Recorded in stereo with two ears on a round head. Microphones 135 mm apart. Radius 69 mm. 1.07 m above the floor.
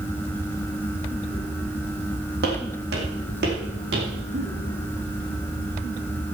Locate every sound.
2.4 s footsteps: 70° right (ahead or behind), 3.5 m; by 4.1 s 75° right (ahead or behind), 4.5 m
4.3 s a giggle: 65° right (ahead or behind), 6 m